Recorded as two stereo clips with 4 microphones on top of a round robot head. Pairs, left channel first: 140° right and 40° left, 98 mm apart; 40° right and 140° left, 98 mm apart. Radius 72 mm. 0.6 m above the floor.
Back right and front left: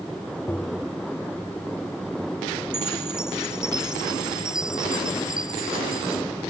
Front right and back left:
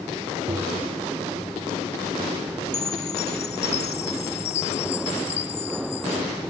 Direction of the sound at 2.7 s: 40° right.